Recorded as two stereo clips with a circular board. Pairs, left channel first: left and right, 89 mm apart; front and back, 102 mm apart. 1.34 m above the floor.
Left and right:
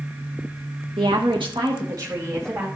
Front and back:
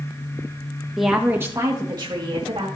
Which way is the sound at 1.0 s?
90° right.